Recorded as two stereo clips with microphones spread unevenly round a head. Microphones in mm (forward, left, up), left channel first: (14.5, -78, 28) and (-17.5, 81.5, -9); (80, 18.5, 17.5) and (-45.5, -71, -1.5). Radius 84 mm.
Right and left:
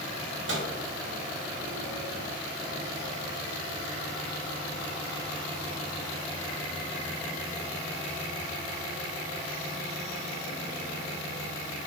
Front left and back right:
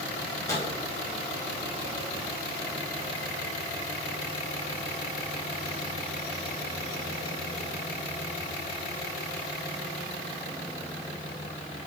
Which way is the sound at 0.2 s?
110° left.